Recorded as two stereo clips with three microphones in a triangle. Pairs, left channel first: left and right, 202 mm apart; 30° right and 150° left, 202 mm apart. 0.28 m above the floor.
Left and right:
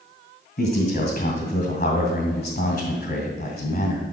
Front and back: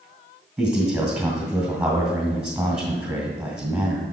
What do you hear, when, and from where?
0.6 s a man speaking: 65° left, 2.0 m